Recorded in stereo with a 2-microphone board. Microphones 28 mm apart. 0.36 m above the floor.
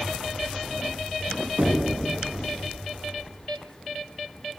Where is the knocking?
65° right (ahead or behind), 2.5 m.